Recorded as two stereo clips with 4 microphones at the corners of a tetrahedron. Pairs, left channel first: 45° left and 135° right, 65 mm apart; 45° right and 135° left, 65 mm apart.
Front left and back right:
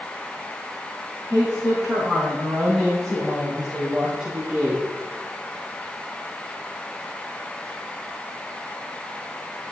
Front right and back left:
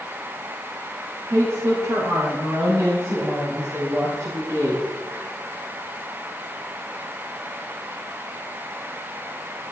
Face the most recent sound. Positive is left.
turn(degrees=160)